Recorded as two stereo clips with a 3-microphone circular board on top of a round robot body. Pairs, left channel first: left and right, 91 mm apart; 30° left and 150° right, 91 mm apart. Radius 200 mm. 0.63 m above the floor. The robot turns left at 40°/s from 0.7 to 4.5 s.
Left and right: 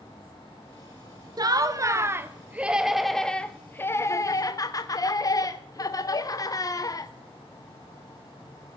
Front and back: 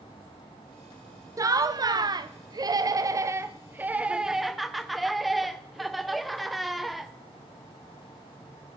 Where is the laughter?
115° right, 0.7 m; by 7.1 s 120° left, 0.7 m.